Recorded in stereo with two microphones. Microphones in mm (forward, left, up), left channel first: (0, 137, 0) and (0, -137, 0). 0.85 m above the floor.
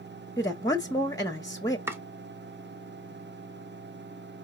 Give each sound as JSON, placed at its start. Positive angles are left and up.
{"t": 0.4, "sound": "a woman speaking", "side_deg": 15, "distance_m": 0.7}
{"t": 1.9, "sound": "chopping", "side_deg": -10, "distance_m": 0.8}